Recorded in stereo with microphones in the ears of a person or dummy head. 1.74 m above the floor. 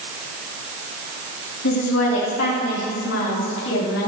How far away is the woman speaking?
About 4.5 m.